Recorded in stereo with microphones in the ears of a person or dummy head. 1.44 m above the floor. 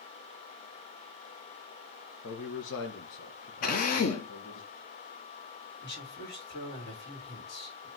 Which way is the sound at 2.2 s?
65° left (ahead or behind).